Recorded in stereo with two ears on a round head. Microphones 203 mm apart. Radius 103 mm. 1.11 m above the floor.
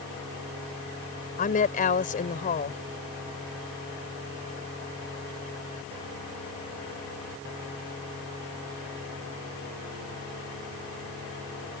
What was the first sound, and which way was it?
A woman speaking, 35° left (ahead or behind).